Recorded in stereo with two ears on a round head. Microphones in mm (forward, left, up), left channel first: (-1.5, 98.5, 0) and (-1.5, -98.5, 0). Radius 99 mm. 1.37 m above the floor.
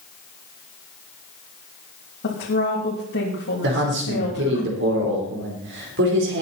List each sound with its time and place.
2.2 s a woman speaking: 60° left (ahead or behind), 3 m
3.6 s a man speaking: 55° right (ahead or behind), 4 m